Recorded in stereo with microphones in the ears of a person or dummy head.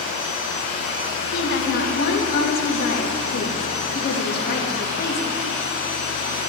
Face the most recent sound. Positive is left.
turn(degrees=50)  # may be behind; listen again after turning